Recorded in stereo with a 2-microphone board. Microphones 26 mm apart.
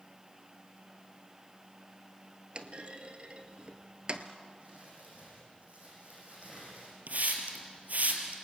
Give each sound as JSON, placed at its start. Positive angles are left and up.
{"t": 2.5, "sound": "a clunk", "side_deg": -40, "distance_m": 1.4}
{"t": 4.6, "sound": "crumpling", "side_deg": -55, "distance_m": 9.0}
{"t": 7.1, "sound": "a hiss", "side_deg": -65, "distance_m": 3.0}